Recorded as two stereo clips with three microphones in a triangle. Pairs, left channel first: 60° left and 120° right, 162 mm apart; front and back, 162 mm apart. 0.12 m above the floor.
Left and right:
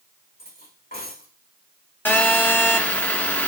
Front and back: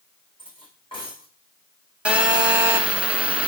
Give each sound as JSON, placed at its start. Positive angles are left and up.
{"t": 0.4, "sound": "cutlery clinking", "azimuth_deg": 55, "distance_m": 4.5}
{"t": 2.0, "sound": "a phone buzzing", "azimuth_deg": 110, "distance_m": 1.5}